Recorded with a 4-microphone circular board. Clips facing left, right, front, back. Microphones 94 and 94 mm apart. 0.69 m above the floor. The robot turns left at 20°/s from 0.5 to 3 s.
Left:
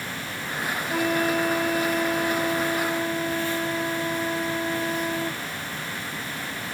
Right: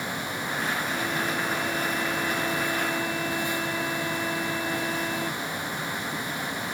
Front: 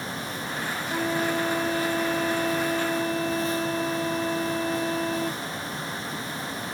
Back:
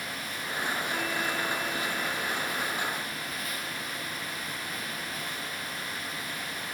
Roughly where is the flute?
Ahead left.